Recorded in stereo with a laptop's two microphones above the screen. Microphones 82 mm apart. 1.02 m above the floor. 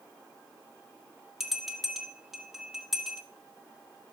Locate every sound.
1.4 s a bell: 5° right (ahead or behind), 1.7 m